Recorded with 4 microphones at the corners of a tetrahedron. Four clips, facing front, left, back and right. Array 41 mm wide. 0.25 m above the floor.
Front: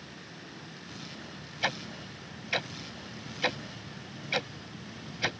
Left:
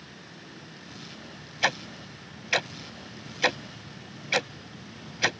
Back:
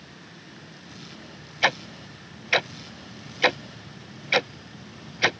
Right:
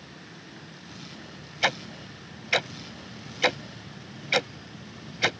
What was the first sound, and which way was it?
Ticking, straight behind.